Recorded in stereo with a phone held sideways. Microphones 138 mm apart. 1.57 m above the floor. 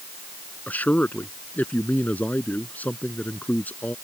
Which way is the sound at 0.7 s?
10° left (ahead or behind).